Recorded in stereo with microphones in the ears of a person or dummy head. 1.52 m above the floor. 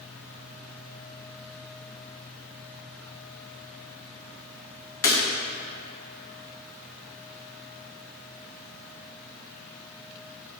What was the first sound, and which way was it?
Breaking glass, 20° left (ahead or behind).